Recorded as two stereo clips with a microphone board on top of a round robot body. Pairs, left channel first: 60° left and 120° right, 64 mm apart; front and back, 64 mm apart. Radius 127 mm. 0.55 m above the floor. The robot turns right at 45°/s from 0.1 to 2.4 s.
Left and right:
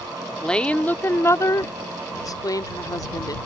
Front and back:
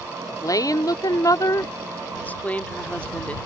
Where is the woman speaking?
20° right; by 3.4 s 70° left.